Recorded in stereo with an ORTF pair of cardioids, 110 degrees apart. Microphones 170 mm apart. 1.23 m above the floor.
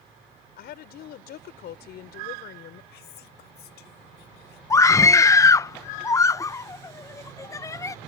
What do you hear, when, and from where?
0.6 s a woman speaking: 70° left
2.9 s whispering: 70° left
4.7 s a scream: 20° left